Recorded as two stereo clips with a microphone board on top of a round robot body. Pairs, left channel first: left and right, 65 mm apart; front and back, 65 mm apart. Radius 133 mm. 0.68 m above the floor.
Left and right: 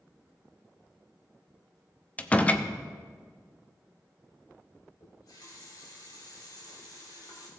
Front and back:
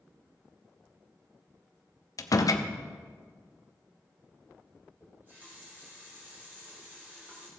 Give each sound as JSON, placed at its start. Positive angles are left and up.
{"t": 2.2, "sound": "a door slam", "azimuth_deg": 20, "distance_m": 0.8}
{"t": 5.0, "sound": "a running tap", "azimuth_deg": 115, "distance_m": 2.5}